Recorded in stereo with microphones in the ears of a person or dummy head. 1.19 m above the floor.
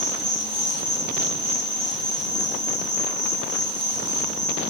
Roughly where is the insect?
Right.